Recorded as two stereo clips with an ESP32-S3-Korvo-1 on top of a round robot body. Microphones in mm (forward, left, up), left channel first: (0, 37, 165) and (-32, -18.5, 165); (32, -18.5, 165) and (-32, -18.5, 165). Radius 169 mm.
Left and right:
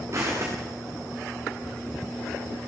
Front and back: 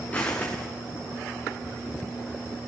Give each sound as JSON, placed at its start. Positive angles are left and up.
{"t": 0.1, "sound": "footsteps", "azimuth_deg": -70, "distance_m": 6.5}